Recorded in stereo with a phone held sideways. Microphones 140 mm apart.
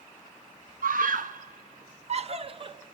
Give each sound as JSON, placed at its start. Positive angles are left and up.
{"t": 0.8, "sound": "a scream", "side_deg": -85, "distance_m": 1.1}